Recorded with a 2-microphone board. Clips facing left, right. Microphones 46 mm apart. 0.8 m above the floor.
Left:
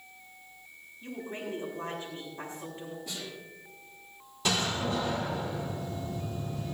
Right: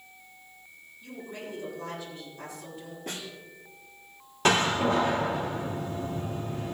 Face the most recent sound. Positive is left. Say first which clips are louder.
# right 7 dB
turn(degrees=-55)  # may be behind; listen again after turning